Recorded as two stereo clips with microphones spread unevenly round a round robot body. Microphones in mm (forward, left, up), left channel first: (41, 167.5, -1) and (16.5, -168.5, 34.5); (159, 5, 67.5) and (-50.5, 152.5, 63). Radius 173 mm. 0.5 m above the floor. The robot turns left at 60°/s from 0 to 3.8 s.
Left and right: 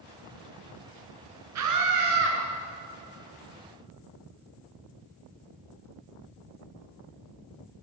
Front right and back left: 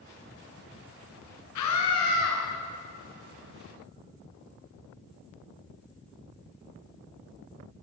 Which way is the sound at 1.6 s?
50° right.